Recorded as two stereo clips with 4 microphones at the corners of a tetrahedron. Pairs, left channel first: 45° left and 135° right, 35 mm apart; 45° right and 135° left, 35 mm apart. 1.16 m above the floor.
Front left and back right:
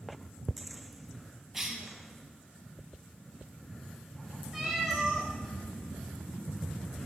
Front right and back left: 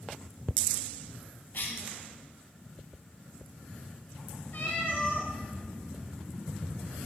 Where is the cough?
55° right, 1.1 m.